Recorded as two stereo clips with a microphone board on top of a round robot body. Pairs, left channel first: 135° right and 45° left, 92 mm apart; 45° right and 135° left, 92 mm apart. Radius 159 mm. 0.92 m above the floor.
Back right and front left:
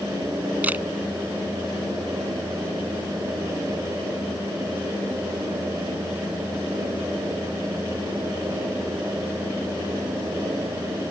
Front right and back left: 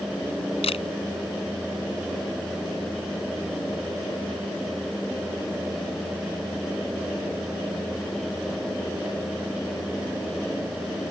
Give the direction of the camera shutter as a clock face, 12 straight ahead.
1 o'clock.